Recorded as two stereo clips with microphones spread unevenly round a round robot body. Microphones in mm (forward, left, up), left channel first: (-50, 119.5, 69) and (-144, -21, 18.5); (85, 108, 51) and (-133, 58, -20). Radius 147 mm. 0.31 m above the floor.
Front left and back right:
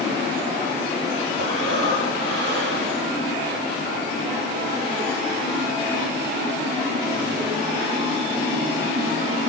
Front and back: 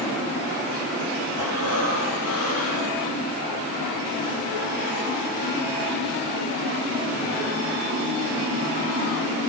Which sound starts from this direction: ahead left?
Breathing, at 1.4 s.